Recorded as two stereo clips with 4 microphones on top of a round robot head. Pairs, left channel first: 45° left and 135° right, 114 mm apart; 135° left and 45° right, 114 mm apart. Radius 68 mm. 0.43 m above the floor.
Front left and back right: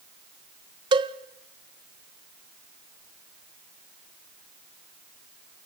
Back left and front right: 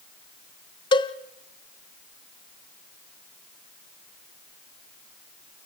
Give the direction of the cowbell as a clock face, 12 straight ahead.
6 o'clock.